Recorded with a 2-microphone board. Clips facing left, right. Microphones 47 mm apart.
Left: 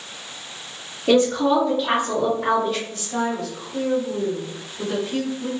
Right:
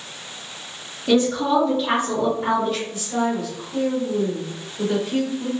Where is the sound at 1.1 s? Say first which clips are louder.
Left 1 dB; 25° left (ahead or behind), 1.7 m; by 2.8 s centre (ahead or behind), 2.5 m.